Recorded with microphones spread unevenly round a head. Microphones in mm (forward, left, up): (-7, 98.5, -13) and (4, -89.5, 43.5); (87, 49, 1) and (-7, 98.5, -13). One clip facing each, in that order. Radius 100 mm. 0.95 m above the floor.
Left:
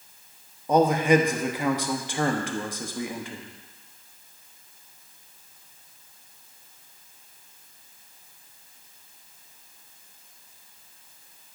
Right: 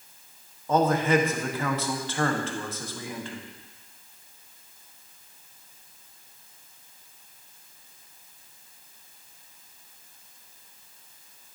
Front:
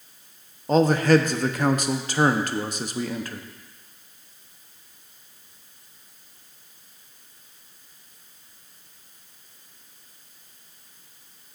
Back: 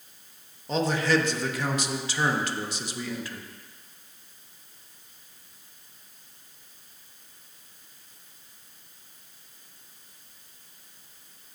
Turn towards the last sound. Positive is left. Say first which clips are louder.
# left 3 dB, front 7 dB
turn(degrees=20)